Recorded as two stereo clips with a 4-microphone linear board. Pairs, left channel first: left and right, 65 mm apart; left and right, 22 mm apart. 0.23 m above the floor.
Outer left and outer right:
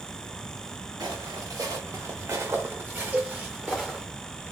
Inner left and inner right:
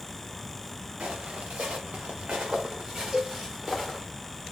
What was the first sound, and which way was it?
Footsteps, 75° right (ahead or behind).